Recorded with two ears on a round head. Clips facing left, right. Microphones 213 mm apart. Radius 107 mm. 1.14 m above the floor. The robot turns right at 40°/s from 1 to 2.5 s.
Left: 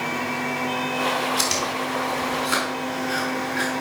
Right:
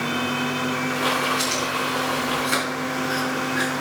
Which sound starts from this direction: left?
Chewing, at 1.4 s.